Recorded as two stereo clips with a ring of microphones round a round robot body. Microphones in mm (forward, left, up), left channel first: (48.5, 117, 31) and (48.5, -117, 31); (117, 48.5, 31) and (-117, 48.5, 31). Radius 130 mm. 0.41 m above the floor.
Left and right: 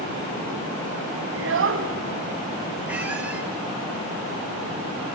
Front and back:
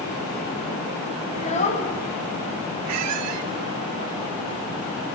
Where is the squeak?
175° right, 1.0 m.